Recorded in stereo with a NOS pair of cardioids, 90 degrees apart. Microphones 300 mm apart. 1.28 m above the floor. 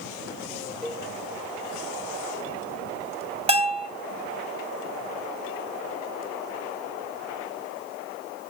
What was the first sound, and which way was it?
A cowbell, straight ahead.